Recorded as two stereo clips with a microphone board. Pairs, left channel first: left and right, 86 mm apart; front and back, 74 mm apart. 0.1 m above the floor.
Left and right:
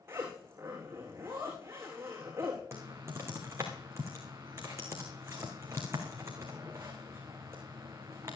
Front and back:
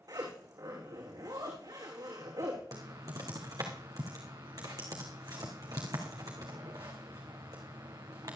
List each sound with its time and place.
0.1 s a zipper: 150° right, 5.5 m
2.7 s typing on a keyboard: 145° right, 3 m